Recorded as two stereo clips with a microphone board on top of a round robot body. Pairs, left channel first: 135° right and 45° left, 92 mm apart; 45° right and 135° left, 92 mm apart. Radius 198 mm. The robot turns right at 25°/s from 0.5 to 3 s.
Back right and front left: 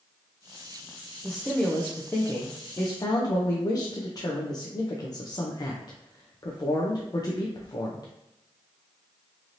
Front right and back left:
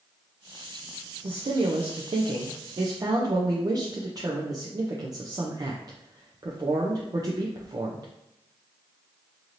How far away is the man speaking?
About 0.5 m.